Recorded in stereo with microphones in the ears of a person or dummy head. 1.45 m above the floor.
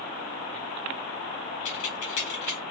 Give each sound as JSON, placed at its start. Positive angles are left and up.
{"t": 1.6, "sound": "keys jangling", "side_deg": 45, "distance_m": 0.9}